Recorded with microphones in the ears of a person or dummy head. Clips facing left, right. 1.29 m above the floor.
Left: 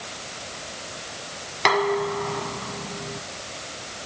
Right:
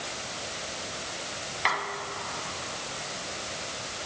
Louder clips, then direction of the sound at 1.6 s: Left 14 dB; 65° left (ahead or behind).